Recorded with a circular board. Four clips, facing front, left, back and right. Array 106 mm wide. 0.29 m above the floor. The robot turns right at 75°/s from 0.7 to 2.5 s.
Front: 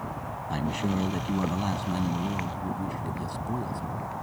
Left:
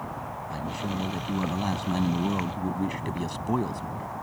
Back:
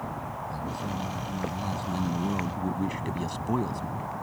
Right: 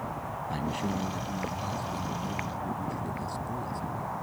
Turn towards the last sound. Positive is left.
turn(degrees=125)